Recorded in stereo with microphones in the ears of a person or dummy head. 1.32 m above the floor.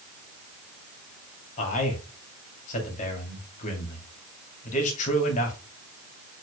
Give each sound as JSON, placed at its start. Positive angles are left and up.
{"t": 1.6, "sound": "a man speaking", "side_deg": 40, "distance_m": 2.5}